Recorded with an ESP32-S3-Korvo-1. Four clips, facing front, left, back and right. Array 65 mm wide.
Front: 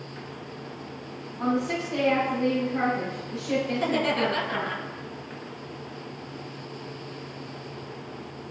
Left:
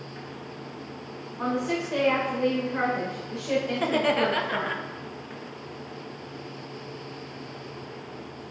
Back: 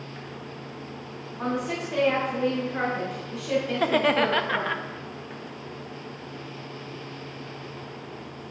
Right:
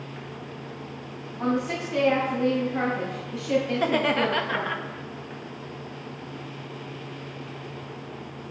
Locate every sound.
1.4 s a woman speaking: 110° left, 3.5 m
3.7 s laughter: 170° right, 0.8 m